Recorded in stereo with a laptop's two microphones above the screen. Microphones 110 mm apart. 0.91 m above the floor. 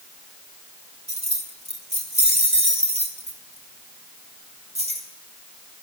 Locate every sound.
1.1 s keys jangling: 65° right (ahead or behind), 1.6 m; by 5.1 s 80° right, 3.5 m